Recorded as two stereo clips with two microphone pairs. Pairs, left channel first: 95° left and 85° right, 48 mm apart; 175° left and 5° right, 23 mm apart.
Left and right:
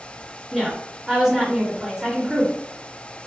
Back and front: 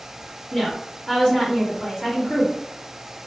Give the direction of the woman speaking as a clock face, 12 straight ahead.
5 o'clock.